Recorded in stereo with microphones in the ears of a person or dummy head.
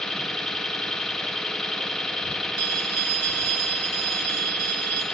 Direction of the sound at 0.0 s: Centre (ahead or behind).